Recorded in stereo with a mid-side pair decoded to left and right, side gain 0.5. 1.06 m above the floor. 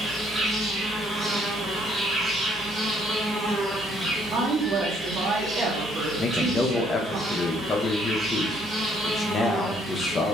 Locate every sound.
0.0 s an insect: 15° right, 1.3 m
4.3 s a woman speaking: 55° right, 0.7 m
6.2 s a man speaking: 35° left, 0.5 m